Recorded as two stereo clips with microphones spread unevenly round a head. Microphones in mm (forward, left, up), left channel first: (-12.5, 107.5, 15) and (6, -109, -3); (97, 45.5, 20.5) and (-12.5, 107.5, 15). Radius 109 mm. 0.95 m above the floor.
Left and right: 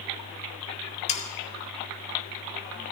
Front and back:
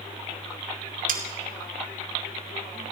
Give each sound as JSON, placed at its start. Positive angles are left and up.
{"t": 1.1, "sound": "sawing", "azimuth_deg": 155, "distance_m": 2.5}